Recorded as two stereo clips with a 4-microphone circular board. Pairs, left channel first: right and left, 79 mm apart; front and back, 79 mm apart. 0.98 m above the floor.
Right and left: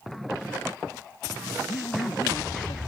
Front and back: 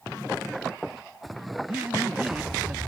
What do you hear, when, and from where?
1.7 s a man speaking: 105° right